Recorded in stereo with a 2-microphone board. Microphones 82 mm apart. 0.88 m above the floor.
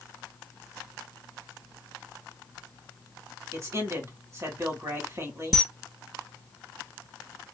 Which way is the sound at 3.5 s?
40° right (ahead or behind).